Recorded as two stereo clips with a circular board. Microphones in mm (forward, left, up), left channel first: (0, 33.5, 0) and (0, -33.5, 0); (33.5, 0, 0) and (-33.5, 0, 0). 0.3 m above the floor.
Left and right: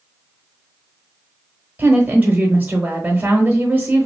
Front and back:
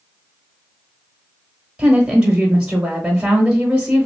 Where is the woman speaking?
115° right, 1.0 m.